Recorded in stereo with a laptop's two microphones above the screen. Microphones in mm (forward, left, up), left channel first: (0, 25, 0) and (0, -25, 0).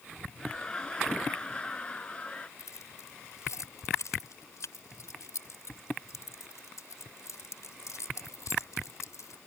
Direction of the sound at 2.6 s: 85° left.